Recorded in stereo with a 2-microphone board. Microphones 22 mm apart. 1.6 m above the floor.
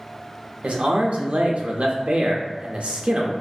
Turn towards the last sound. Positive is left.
turn(degrees=-65)  # may be behind; listen again after turning